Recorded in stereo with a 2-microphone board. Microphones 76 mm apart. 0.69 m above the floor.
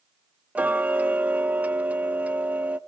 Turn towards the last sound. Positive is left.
turn(degrees=-20)  # may be behind; listen again after turning